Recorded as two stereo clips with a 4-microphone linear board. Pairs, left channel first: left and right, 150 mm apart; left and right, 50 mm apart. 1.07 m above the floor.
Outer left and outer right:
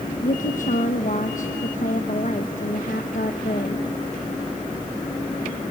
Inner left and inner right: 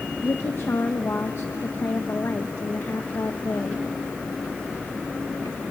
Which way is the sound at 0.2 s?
60° left (ahead or behind).